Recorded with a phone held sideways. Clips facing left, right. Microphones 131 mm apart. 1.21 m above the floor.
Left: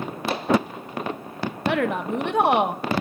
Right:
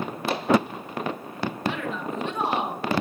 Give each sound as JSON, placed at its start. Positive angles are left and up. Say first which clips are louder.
{"t": 1.7, "sound": "a woman speaking", "louder": "left 9 dB", "side_deg": 65, "distance_m": 1.0}